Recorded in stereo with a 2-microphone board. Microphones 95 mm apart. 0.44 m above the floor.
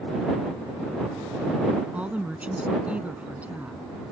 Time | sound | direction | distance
1.9 | a woman speaking | 15° right (ahead or behind) | ?